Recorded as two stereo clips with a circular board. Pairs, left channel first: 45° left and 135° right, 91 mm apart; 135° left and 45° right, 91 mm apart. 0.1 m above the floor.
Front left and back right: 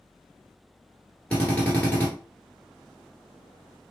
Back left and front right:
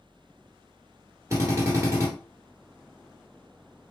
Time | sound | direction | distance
1.3 | a drill | 15° right | 1.4 m